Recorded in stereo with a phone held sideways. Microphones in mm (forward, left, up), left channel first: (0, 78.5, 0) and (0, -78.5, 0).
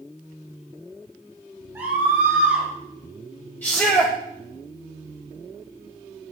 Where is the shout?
10° left (ahead or behind), 1.0 m.